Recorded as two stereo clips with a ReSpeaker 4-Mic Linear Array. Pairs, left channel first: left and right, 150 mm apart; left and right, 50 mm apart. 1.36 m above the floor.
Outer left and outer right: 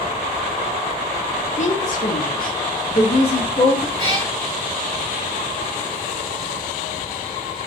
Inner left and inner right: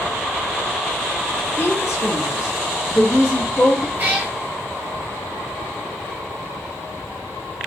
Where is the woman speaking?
50° left (ahead or behind), 0.6 m; by 3.9 s 35° left (ahead or behind), 1.1 m.